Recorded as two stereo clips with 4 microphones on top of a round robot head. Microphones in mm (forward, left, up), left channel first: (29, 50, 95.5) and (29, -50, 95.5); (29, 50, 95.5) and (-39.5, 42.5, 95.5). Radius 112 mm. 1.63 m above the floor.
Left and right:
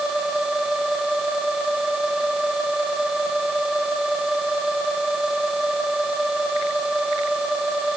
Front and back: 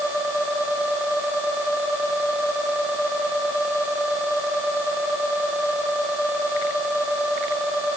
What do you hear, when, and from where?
Only background noise.